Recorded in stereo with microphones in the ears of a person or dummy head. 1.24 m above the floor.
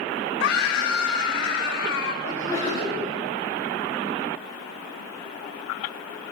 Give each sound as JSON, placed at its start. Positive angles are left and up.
{"t": 0.4, "sound": "a scream", "side_deg": 70, "distance_m": 4.0}
{"t": 2.2, "sound": "a sneeze", "side_deg": 40, "distance_m": 6.0}